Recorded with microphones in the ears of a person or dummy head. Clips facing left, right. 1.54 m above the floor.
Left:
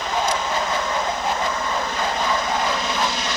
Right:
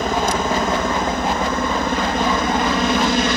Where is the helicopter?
45° right (ahead or behind); by 3.4 s 50° right (ahead or behind).